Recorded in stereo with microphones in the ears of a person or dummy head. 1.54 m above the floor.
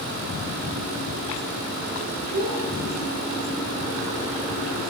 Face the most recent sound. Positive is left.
turn(degrees=-55)  # may be behind; listen again after turning